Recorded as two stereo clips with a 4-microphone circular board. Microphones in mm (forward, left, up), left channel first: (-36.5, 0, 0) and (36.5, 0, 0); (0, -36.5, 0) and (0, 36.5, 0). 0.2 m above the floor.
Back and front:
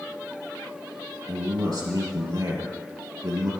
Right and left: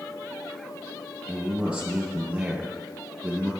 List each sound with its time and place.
1.3 s a man speaking: 10° left, 3 m